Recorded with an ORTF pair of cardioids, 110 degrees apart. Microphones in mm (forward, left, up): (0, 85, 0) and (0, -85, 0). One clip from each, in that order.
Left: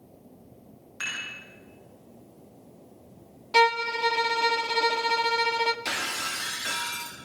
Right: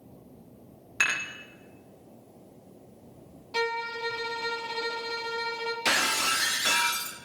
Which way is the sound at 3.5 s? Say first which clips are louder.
Left 8 dB; 40° left.